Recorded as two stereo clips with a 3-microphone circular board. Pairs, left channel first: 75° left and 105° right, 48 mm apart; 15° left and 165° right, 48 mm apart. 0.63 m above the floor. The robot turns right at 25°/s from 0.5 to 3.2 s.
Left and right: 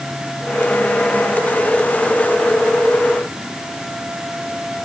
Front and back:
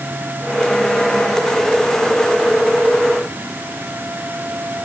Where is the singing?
I don't hear singing.